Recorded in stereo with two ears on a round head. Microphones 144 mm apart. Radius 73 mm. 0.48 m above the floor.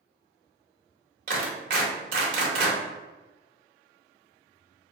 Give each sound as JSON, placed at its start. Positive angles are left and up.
{"t": 1.3, "sound": "a clap", "side_deg": -55, "distance_m": 1.6}